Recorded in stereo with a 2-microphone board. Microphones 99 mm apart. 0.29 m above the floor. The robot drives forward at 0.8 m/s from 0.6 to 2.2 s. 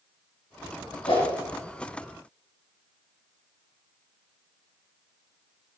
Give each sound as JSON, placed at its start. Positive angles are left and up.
{"t": 1.1, "sound": "a whoosh", "side_deg": 75, "distance_m": 4.0}